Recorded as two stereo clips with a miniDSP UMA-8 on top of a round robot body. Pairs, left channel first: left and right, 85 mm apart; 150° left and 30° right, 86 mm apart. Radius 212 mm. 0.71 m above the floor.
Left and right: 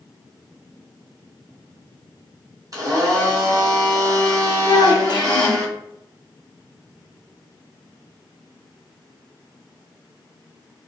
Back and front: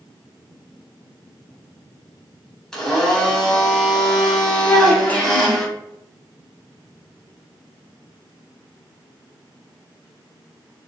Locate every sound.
2.7 s a blender: 130° right, 1.2 m
4.7 s a child speaking: 85° left, 0.8 m